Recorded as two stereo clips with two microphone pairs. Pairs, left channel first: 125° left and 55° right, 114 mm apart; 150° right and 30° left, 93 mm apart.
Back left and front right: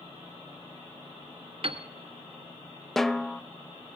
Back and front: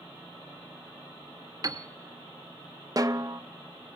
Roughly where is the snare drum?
Ahead left.